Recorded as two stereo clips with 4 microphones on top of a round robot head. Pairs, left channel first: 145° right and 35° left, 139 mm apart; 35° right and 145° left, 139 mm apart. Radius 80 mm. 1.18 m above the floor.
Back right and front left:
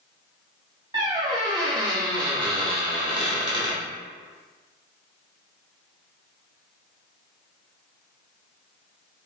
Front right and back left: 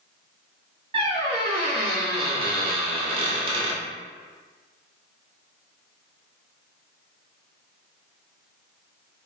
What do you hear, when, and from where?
0.9 s a squeak: 95° left, 0.7 m